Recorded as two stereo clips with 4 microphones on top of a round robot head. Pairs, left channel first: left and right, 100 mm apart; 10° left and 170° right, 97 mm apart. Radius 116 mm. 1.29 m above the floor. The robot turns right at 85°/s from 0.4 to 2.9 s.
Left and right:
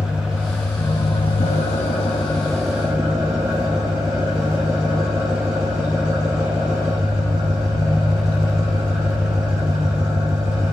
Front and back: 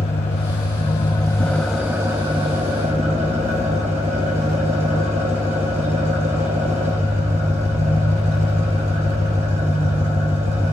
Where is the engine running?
10° right, 1.2 m; by 10.7 s 160° right, 1.2 m.